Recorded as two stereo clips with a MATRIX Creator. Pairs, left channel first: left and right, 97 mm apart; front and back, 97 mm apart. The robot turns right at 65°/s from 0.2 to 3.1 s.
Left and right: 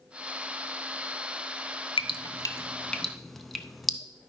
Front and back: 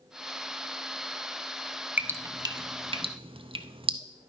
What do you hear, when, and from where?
2.0 s dripping: 105° left, 0.6 m; by 4.0 s straight behind, 0.6 m